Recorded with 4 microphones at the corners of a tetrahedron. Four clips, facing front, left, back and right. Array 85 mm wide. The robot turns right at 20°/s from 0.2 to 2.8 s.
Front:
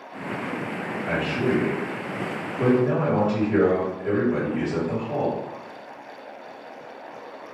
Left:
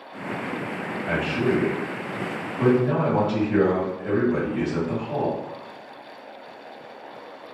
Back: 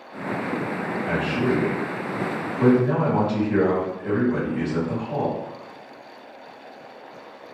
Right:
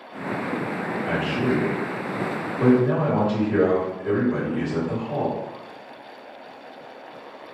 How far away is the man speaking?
About 1.8 m.